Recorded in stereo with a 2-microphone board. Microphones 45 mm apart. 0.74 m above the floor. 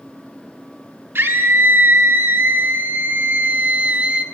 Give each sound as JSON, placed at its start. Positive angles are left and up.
{"t": 1.1, "sound": "a scream", "side_deg": -60, "distance_m": 2.0}